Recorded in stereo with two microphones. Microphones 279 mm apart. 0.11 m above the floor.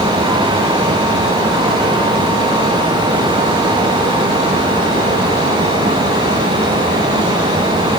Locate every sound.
Only background noise.